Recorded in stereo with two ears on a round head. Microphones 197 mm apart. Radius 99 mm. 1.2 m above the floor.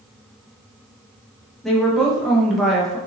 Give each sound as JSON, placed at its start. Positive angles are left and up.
{"t": 1.6, "sound": "a woman speaking", "side_deg": 0, "distance_m": 0.8}